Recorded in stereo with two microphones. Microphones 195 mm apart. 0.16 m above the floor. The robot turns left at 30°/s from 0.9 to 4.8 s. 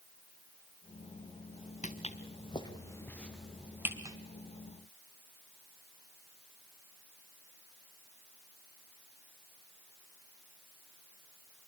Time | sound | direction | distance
1.8 | footsteps | 40° left (ahead or behind) | 1.5 m